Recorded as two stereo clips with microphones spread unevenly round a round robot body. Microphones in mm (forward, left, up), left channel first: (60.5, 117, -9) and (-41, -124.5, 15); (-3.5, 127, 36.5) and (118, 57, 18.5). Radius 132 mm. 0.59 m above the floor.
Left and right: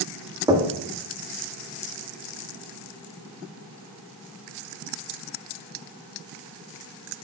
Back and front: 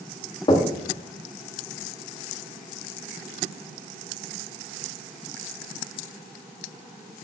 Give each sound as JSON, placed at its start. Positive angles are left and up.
{"t": 0.5, "sound": "knocking", "azimuth_deg": 175, "distance_m": 0.9}